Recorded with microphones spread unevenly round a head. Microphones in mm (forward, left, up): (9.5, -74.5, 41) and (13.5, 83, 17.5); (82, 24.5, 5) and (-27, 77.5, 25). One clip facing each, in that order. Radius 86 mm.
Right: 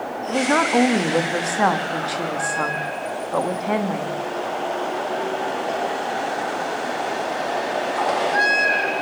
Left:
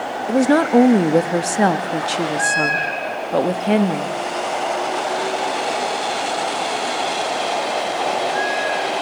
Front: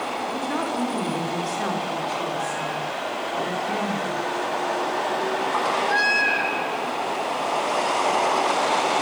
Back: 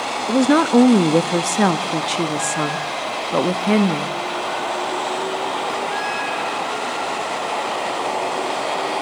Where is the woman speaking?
145° left, 1.3 m.